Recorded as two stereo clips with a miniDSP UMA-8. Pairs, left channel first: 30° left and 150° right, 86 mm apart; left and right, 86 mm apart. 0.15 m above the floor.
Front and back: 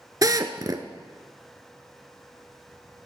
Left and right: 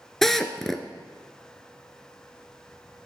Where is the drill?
175° left, 0.9 m.